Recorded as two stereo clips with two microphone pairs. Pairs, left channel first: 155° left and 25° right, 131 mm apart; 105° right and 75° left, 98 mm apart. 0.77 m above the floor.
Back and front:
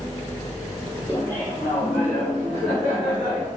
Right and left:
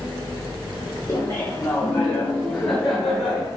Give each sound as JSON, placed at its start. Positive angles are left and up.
{"t": 1.1, "sound": "laughter", "azimuth_deg": -150, "distance_m": 2.0}